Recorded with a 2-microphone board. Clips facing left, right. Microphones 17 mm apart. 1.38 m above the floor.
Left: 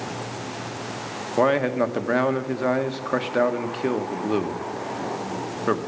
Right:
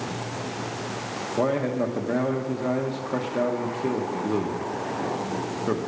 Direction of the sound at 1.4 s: 65° left (ahead or behind).